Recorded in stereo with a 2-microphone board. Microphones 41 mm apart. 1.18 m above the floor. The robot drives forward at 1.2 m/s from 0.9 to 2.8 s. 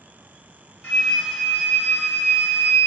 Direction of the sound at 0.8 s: 40° left (ahead or behind).